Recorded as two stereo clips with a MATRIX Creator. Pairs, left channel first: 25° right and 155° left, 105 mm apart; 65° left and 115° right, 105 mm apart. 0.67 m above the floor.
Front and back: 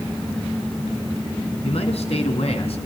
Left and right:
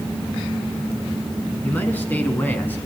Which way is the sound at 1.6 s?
5° right.